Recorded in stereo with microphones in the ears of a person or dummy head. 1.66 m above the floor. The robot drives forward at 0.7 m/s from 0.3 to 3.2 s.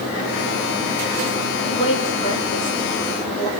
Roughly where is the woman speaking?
Left.